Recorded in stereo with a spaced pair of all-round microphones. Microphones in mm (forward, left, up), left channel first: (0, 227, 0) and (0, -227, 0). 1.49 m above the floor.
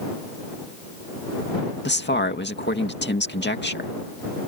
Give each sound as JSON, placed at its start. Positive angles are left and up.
{"t": 1.9, "sound": "a man speaking", "side_deg": 25}